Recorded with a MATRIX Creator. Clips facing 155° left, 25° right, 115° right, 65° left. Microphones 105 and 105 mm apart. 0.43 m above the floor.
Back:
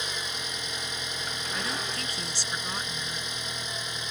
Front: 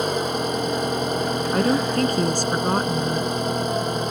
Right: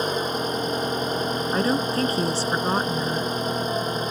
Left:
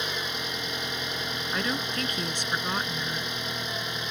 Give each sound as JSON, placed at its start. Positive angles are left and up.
{"t": 0.0, "sound": "an engine running", "azimuth_deg": -60}
{"t": 1.5, "sound": "a woman speaking", "azimuth_deg": -55}